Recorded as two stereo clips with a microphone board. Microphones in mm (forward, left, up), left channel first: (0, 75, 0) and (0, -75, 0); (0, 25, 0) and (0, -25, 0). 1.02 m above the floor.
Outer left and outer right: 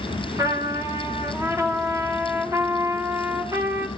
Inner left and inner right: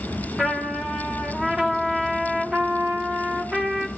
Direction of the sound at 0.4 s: 20° right (ahead or behind).